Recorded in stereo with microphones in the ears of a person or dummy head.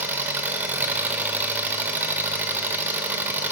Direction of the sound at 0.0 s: 15° right (ahead or behind).